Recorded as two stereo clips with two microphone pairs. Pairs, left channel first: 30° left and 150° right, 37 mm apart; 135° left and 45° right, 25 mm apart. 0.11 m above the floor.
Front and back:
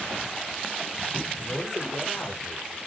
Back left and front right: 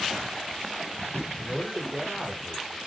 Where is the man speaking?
50° left, 5.5 m.